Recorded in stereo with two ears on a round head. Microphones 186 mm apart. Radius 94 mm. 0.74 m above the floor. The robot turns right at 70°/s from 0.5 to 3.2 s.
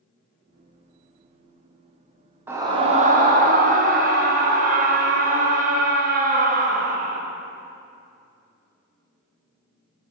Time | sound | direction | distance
2.5 | a scream | 165° right | 0.6 m